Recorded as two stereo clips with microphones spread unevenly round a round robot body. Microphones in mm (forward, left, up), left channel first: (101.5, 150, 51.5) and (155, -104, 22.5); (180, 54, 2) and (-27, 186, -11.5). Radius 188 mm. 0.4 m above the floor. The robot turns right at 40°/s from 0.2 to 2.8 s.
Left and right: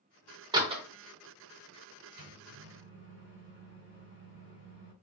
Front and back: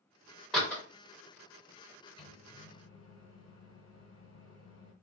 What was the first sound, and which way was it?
A door slam, 125° right.